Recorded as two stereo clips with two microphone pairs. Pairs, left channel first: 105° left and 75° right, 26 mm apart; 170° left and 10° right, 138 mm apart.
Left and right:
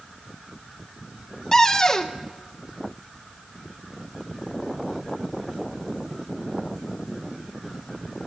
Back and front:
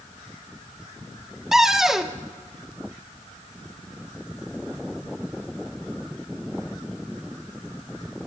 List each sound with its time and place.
1.5 s a cupboard door: 70° left, 0.7 m